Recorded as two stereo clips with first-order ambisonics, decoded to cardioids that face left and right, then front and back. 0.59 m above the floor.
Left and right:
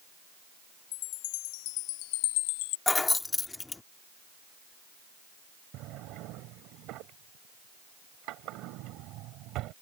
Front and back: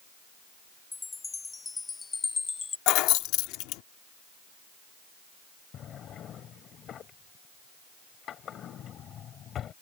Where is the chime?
75° left.